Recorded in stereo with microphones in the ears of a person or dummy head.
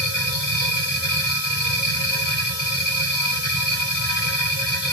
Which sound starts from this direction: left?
A machine running, at 0.0 s.